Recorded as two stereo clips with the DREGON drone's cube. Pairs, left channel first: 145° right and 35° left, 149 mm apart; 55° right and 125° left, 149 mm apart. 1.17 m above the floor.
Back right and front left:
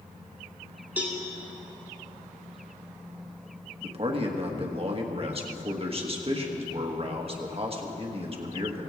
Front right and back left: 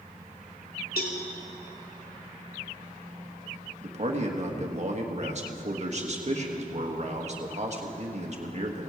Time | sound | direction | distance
1.0 | a cowbell | 45° right | 1.9 m
3.8 | a man speaking | 85° left | 1.5 m